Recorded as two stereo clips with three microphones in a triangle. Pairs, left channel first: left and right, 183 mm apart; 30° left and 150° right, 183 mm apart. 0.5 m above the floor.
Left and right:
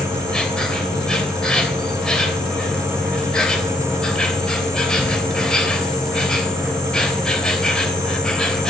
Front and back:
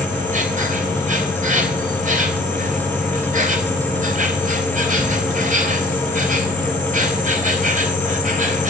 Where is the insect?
175° left, 3.5 m.